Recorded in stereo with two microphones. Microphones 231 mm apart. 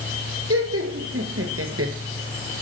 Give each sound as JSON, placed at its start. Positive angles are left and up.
{"t": 0.5, "sound": "laughter", "side_deg": -75, "distance_m": 4.0}